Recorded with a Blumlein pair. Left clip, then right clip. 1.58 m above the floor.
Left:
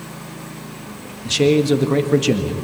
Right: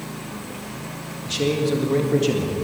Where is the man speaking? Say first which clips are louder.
Left 6 dB; 25° left, 1.9 m.